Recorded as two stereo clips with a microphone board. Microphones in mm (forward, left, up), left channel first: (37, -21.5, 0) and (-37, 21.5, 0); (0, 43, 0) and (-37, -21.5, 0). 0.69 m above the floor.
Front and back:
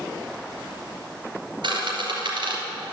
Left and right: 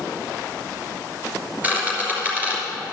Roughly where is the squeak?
Behind.